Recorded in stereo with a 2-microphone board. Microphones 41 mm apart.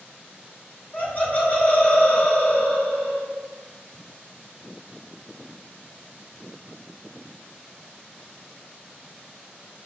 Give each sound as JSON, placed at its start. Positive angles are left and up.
{"t": 0.9, "sound": "laughter", "side_deg": 40, "distance_m": 1.5}